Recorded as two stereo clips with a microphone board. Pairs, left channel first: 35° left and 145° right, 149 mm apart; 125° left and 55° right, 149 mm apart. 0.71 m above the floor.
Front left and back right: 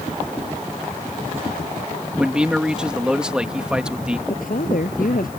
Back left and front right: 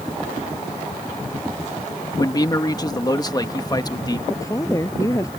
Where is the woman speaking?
55° left.